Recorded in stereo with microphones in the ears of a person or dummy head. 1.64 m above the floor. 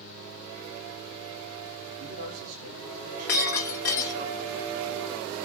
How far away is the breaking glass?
About 1.2 m.